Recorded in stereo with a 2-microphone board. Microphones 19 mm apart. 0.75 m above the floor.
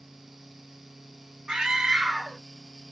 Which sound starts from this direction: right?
A scream, at 1.5 s.